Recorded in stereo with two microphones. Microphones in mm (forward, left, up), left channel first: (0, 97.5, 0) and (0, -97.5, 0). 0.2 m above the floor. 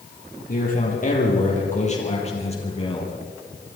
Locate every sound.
0.5 s a man speaking: 45° left (ahead or behind), 8 m; by 3.1 s 25° left (ahead or behind), 6.5 m